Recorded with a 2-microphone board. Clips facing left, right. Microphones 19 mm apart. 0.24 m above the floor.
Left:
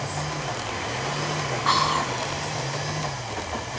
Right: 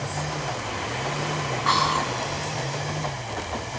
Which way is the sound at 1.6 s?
Centre (ahead or behind).